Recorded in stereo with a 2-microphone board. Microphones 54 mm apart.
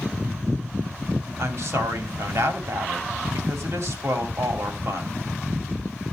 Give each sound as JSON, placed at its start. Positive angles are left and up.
{"t": 1.4, "sound": "a woman speaking", "side_deg": -60, "distance_m": 3.0}